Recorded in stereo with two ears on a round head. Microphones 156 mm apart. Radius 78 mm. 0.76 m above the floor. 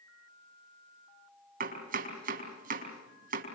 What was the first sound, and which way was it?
Chopping, 50° right (ahead or behind).